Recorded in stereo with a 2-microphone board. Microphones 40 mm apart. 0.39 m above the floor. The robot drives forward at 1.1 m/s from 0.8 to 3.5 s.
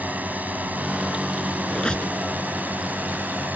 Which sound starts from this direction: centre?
A squeak, at 1.7 s.